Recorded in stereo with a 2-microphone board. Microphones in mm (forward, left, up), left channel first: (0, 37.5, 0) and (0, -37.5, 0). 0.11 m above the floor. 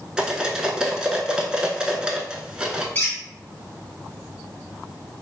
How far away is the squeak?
About 1.6 m.